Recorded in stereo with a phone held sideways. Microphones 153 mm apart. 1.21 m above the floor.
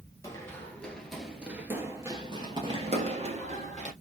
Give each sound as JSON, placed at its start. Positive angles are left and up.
{"t": 0.2, "sound": "running footsteps", "side_deg": 20, "distance_m": 1.3}